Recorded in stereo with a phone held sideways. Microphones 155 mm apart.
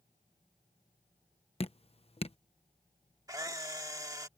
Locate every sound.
1.6 s dripping: 40° left (ahead or behind)
3.3 s a camera shutter: 20° right (ahead or behind)